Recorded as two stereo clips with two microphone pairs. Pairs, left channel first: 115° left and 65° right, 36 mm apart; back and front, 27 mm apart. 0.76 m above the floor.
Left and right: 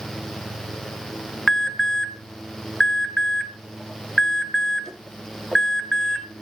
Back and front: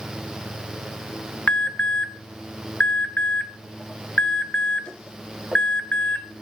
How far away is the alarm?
About 2.0 m.